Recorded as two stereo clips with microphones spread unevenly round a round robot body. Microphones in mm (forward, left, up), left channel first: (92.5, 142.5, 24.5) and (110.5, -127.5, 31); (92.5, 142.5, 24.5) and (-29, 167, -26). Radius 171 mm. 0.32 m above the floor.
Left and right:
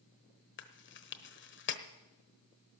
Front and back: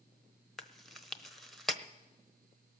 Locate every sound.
0.6 s chewing: 105° left, 1.0 m